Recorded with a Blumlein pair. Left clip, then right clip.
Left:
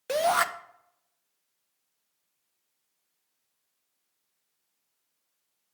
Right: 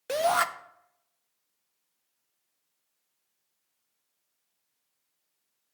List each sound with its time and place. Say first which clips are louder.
0.1 s a shout: left 1 dB; straight ahead, 0.5 m